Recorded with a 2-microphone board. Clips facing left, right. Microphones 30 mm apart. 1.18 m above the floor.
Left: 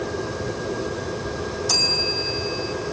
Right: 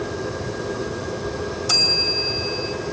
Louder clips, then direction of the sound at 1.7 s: Right 3 dB; 55° right (ahead or behind).